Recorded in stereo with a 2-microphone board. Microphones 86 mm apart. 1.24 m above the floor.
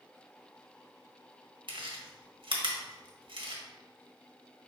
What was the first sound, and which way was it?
Chewing, 70° right (ahead or behind).